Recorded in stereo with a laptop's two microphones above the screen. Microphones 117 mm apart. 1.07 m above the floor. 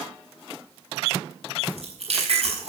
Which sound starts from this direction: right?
Chewing, at 1.6 s.